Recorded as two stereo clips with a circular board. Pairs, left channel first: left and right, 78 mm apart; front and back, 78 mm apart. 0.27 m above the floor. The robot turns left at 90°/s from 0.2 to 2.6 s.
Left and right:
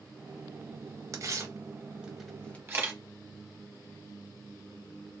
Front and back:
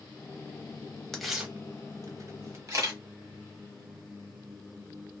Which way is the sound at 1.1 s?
80° right.